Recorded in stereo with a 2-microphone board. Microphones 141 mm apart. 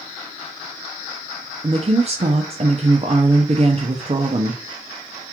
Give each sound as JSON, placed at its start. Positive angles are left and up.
{"t": 1.6, "sound": "a woman speaking", "side_deg": -40, "distance_m": 0.7}